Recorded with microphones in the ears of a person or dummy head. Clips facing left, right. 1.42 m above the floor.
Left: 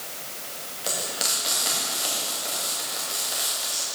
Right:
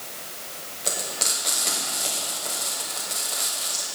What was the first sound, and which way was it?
Frying, 15° left (ahead or behind).